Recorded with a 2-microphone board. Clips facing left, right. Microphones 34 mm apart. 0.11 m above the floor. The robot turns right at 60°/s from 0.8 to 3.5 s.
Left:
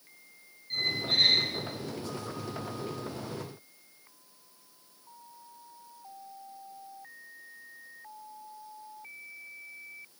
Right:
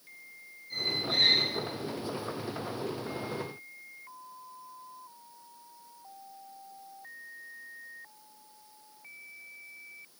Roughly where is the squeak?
Ahead left.